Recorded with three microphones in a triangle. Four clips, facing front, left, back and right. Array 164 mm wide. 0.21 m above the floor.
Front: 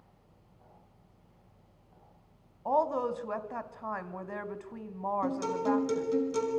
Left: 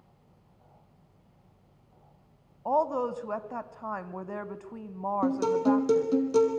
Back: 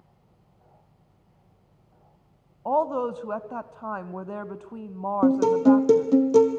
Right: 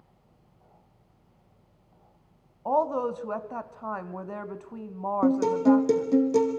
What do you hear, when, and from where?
2.6 s a woman speaking: 165° right, 1.0 m
5.2 s a guitar: 165° right, 2.5 m